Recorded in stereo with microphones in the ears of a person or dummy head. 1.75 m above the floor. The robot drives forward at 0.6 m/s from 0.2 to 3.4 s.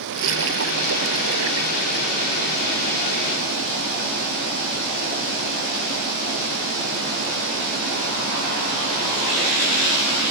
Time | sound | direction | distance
0.1 | a splash | 70° right (ahead or behind) | ?